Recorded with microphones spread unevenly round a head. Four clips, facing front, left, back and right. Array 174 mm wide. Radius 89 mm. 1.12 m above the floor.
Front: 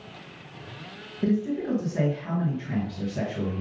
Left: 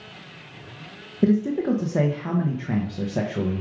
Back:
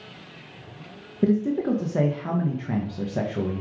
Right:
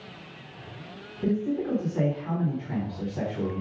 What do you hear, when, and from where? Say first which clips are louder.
1.2 s a man speaking: left 6 dB, back 4 dB; 125° left, 1.3 m